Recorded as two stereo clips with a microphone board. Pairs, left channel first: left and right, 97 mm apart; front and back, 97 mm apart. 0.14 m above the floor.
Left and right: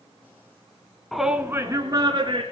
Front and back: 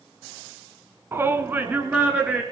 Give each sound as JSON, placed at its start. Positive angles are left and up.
{"t": 1.1, "sound": "a shout", "azimuth_deg": 175, "distance_m": 1.1}